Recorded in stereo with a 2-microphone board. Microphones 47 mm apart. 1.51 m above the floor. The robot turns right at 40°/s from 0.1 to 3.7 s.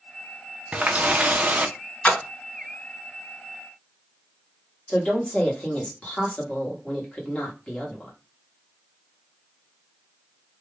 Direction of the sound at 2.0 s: 30° left (ahead or behind).